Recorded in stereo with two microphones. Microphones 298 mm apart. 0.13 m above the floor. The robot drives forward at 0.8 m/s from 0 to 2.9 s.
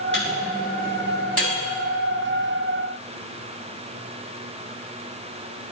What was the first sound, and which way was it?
A microwave, 40° right (ahead or behind).